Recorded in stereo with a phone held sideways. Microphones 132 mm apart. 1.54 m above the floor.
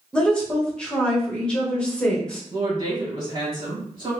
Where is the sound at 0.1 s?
5° left (ahead or behind), 1.2 m.